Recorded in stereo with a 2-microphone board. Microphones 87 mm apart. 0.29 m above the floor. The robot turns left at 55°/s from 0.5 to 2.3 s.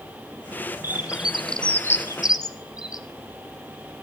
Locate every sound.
0.8 s a bird: 30° right (ahead or behind), 1.1 m; by 3.0 s 50° left (ahead or behind), 1.1 m